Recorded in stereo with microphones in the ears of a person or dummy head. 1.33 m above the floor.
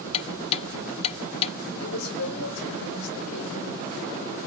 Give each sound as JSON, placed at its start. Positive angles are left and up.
{"t": 0.1, "sound": "ticking", "side_deg": 40, "distance_m": 1.0}
{"t": 1.8, "sound": "a woman speaking", "side_deg": 85, "distance_m": 6.0}